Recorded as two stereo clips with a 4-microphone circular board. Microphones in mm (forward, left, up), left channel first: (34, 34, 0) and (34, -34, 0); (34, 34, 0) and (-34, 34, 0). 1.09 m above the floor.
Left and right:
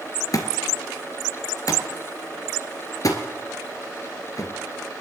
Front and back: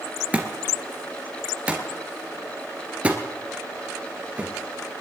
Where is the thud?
115° left, 2 m.